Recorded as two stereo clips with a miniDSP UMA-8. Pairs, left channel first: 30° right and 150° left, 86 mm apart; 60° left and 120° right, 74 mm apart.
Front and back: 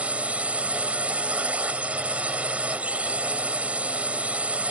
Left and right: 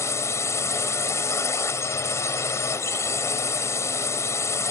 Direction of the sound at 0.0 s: 80° left.